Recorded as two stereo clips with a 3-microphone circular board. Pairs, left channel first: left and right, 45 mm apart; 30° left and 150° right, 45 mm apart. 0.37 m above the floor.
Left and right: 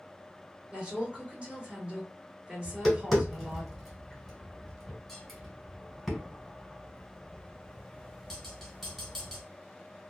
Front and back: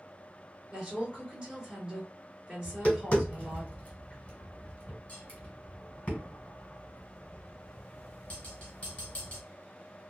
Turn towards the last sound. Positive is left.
turn(degrees=5)